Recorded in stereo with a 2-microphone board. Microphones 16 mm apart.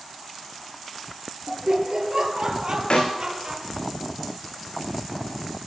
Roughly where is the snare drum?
Left.